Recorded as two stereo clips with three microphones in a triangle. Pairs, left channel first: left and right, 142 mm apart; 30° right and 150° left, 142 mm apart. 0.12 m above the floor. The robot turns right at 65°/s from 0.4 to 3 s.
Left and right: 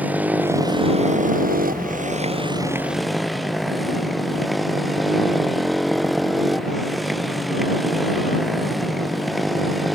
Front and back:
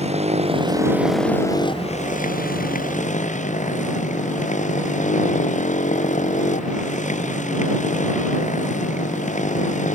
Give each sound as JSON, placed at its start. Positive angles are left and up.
{"t": 0.0, "sound": "a motorcycle", "azimuth_deg": -170}